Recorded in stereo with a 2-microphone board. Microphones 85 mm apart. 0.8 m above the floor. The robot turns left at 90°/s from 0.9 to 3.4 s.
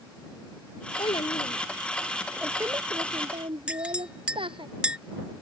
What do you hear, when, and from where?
1.0 s a child speaking: 115° left; by 4.7 s 105° right
3.7 s a clink: 15° right (ahead or behind)